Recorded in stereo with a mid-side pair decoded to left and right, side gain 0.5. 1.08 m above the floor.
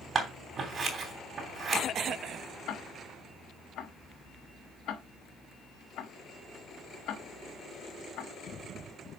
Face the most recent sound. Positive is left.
turn(degrees=65)